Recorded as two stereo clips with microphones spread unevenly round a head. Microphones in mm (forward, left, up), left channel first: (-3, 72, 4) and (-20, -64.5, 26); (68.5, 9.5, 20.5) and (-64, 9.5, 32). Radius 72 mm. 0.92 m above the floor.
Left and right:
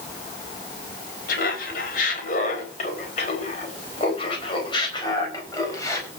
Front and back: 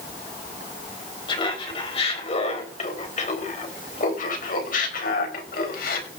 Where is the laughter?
55° left, 4.5 m; by 6.1 s 10° left, 4.5 m.